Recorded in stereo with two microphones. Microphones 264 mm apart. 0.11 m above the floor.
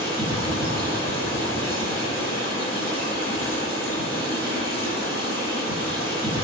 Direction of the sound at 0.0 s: 35° left (ahead or behind).